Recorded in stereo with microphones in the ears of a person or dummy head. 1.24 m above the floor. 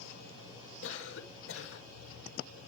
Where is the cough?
85° left, 5 m.